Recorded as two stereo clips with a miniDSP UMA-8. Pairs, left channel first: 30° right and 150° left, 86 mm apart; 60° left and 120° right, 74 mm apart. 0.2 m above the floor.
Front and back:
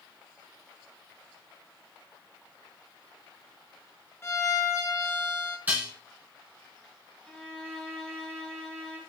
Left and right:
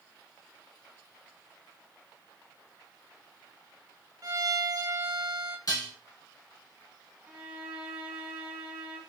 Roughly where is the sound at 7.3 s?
Right.